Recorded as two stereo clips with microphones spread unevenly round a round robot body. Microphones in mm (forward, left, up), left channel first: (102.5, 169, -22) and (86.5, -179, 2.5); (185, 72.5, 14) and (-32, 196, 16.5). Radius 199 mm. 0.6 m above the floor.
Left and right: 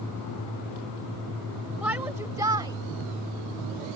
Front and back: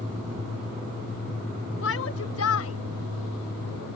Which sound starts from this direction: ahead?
A shout, at 1.8 s.